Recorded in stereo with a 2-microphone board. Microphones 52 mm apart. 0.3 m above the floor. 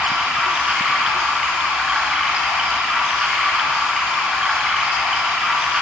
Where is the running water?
15° right (ahead or behind), 2.5 m.